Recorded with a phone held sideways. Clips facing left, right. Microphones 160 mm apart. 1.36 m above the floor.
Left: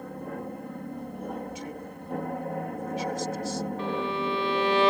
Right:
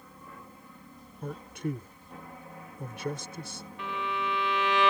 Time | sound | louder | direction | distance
0.0 | an aircraft | left 14 dB | 60° left (ahead or behind) | ?
1.2 | a man speaking | right 4 dB | 60° right (ahead or behind) | ?
3.8 | a violin | left 2 dB | 35° left (ahead or behind) | ?